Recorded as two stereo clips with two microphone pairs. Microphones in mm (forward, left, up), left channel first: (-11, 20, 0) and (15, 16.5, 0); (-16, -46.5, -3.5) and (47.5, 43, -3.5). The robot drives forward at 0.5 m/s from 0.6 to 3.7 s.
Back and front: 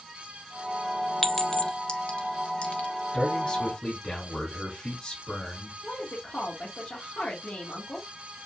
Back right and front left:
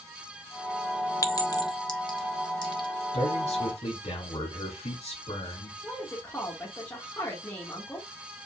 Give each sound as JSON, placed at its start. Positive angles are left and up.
{"t": 1.2, "sound": "a clink", "azimuth_deg": -120, "distance_m": 0.5}
{"t": 3.1, "sound": "a man speaking", "azimuth_deg": -140, "distance_m": 2.0}
{"t": 5.8, "sound": "a woman speaking", "azimuth_deg": 165, "distance_m": 1.5}